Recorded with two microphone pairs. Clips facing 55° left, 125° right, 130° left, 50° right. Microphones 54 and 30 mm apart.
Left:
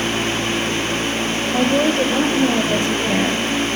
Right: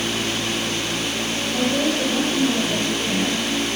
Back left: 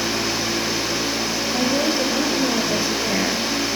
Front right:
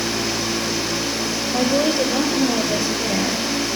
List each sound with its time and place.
1.5 s a woman speaking: 35° left, 4 m; by 3.5 s 70° left, 4 m